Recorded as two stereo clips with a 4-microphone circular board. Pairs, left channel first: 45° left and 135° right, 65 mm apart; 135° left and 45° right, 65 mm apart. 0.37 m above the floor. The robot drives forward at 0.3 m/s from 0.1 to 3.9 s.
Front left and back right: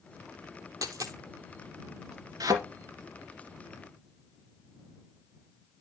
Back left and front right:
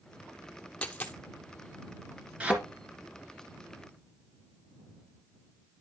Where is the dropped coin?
155° right, 1.0 m; by 1.2 s 160° right, 1.1 m.